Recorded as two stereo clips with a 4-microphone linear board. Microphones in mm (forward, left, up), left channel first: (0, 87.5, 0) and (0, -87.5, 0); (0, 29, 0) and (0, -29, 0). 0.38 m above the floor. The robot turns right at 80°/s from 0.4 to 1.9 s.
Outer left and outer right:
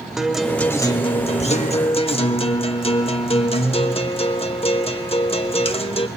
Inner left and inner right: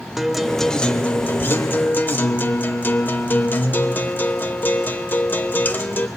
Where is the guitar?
5° right, 0.7 m; by 6.1 s 115° left, 0.7 m.